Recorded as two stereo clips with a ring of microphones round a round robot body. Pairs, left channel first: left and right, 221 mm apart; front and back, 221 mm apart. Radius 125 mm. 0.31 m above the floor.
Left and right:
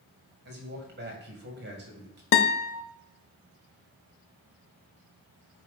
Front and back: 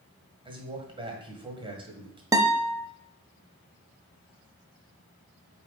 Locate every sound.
0.5 s a man speaking: 120° right, 2 m
2.3 s a guitar: 105° left, 0.6 m